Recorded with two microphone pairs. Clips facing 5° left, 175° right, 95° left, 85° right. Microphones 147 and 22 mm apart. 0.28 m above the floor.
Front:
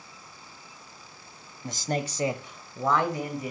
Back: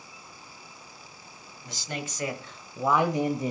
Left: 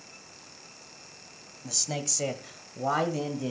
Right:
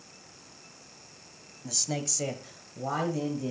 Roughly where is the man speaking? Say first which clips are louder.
Front 7 dB, even; ahead.